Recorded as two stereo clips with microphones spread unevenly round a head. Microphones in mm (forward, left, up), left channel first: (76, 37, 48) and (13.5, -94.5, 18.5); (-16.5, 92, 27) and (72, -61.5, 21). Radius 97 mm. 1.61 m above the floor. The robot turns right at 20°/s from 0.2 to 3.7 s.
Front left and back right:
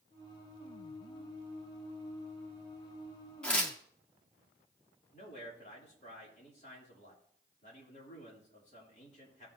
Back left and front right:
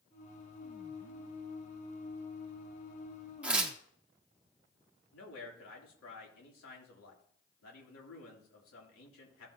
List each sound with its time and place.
3.4 s tearing paper: 20° left, 1.2 m; by 3.8 s 25° left, 1.2 m
5.1 s a man speaking: 120° left, 3 m